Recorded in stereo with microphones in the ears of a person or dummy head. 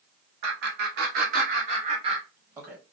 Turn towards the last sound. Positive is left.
turn(degrees=-10)  # may be behind; listen again after turning